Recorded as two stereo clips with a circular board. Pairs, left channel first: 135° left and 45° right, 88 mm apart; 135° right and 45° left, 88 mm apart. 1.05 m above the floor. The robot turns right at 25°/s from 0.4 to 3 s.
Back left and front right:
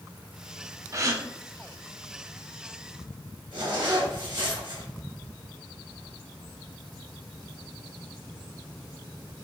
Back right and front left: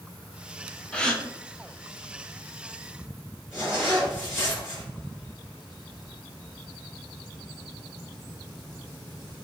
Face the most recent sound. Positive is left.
turn(degrees=-35)